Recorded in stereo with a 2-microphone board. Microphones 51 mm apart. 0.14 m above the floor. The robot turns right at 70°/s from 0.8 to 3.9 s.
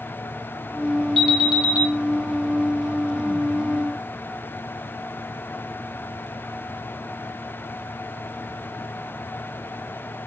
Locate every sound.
1.2 s an alarm: straight behind, 1.2 m; by 1.9 s 130° right, 1.2 m